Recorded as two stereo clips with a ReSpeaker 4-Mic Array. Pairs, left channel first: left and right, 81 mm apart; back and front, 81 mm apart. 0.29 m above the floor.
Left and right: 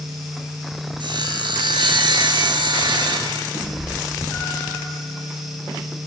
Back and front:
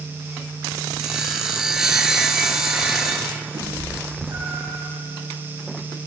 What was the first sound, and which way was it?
Sawing, 85° right.